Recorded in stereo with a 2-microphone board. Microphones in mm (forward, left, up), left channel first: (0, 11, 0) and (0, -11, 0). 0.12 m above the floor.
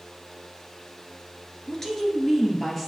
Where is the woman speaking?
25° left (ahead or behind), 1.6 m; by 2.9 s 15° left (ahead or behind), 2 m.